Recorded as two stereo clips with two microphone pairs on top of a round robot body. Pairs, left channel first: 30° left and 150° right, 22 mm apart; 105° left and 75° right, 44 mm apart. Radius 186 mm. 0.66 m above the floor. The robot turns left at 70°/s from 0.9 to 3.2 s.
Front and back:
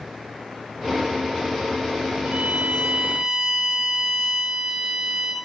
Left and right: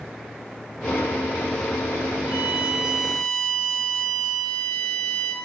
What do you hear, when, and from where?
2.2 s a violin: 150° right, 7.5 m; by 5.3 s 140° left, 7.5 m